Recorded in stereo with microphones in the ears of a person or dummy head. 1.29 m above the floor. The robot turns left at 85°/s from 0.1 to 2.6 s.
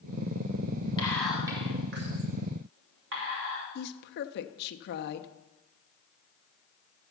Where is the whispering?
25° left (ahead or behind), 3 m; by 3.6 s 70° right (ahead or behind), 3 m.